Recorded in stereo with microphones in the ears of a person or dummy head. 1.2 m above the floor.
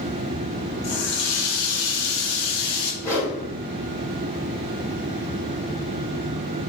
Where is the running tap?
60° left (ahead or behind), 1.0 m.